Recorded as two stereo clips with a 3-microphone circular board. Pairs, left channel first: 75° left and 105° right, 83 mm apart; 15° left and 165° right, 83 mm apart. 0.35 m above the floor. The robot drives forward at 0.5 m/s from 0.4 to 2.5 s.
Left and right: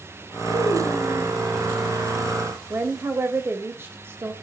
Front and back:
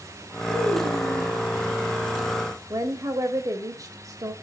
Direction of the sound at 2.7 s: 150° right.